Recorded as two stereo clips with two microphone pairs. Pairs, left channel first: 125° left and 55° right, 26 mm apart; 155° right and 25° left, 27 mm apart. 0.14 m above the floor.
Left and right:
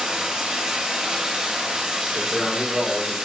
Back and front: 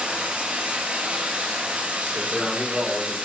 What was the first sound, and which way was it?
Running water, 10° left.